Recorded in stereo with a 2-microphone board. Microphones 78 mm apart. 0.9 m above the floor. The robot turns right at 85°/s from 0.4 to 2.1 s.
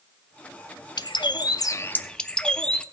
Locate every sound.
1.0 s a bird: 70° left, 0.5 m; by 2.8 s 170° left, 0.5 m